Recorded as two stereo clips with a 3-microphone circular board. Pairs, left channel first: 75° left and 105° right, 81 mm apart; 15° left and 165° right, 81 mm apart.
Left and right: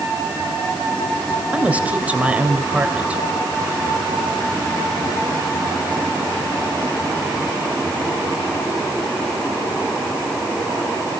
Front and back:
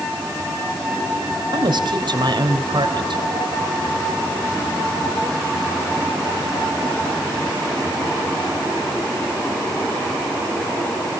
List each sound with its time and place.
1.5 s a woman speaking: 175° right, 3 m